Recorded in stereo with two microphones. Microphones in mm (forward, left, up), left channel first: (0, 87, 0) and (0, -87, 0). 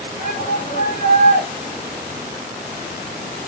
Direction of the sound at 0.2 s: 45° left (ahead or behind).